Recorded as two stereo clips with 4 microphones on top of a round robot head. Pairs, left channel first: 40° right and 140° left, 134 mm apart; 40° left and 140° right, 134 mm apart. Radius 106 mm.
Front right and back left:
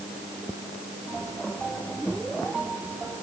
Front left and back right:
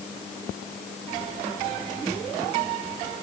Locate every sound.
Only background noise.